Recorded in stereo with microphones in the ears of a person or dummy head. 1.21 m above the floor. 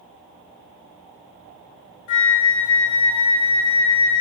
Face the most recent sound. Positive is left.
turn(degrees=50)  # may be behind; listen again after turning